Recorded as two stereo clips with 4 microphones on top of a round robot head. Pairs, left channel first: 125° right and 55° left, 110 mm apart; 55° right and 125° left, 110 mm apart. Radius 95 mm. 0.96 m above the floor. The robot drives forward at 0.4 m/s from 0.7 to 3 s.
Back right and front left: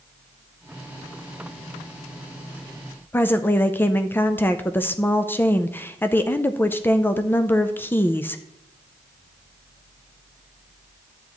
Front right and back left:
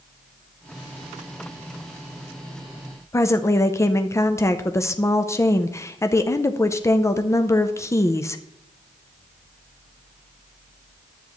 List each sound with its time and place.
3.1 s a woman speaking: 80° right, 0.6 m